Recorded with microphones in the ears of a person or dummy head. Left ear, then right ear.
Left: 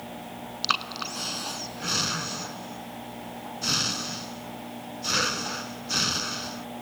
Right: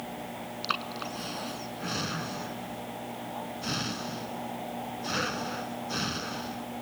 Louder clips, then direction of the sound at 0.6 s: Left 6 dB; 25° left (ahead or behind).